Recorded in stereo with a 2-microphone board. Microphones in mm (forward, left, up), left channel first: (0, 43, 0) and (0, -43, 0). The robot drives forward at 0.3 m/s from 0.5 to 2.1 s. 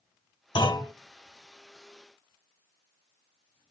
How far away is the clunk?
About 3 m.